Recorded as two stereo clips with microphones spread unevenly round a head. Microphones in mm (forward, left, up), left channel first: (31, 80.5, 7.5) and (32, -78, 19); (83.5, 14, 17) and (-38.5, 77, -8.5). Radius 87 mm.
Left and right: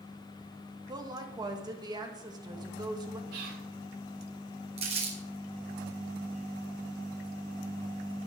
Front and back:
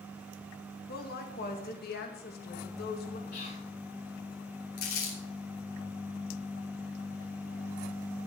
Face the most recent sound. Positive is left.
turn(degrees=-40)